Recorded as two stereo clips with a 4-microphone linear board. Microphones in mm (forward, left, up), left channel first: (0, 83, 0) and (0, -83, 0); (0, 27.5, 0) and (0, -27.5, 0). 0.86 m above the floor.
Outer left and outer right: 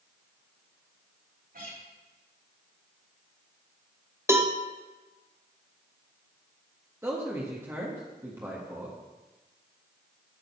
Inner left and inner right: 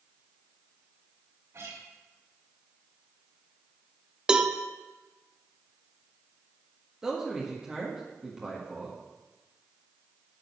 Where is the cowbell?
15° right (ahead or behind), 0.8 m.